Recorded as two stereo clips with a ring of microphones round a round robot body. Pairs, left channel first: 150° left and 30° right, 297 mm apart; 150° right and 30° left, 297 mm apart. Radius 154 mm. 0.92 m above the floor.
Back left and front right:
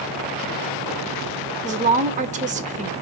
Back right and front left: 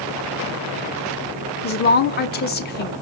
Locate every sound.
1.6 s a woman speaking: 95° right, 1.1 m